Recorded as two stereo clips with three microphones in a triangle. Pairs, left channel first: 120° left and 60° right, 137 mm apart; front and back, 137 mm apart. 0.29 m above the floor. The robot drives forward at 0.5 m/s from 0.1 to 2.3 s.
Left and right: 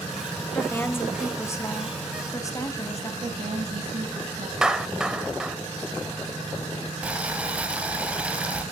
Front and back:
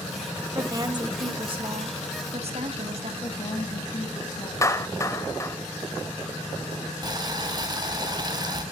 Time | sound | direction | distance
0.6 | a woman speaking | 175° left | 1.2 m
3.2 | a woman speaking | 45° right | 1.8 m
4.6 | a clap | 15° left | 0.7 m
7.0 | boiling | 135° right | 1.5 m